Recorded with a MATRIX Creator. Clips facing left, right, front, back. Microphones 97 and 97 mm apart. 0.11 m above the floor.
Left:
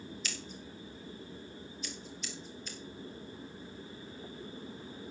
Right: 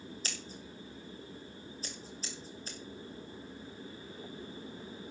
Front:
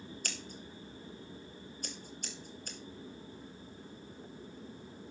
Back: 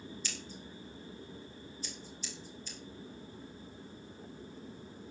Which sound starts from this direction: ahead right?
Scissors, at 0.2 s.